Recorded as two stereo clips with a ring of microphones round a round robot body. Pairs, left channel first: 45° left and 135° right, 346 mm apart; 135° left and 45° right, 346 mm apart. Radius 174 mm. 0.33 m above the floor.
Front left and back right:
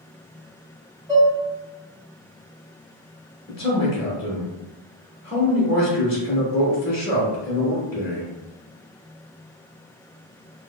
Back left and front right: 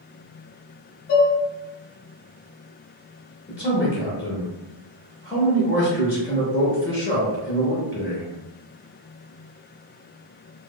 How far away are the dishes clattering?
About 1.3 m.